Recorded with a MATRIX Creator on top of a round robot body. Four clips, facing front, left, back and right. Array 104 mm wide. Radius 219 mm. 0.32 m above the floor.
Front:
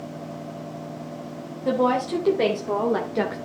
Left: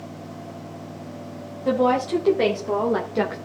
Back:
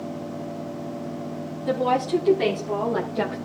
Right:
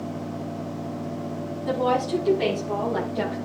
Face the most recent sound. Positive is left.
turn(degrees=55)